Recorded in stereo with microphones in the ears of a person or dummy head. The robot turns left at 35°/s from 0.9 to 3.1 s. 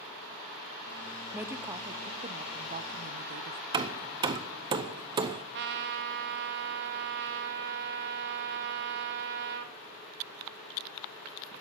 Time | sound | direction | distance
1.3 | a woman speaking | 10° right | 0.7 m
3.7 | hammering | 25° right (ahead or behind) | 0.6 m
5.5 | a trumpet | 60° right (ahead or behind) | 1.0 m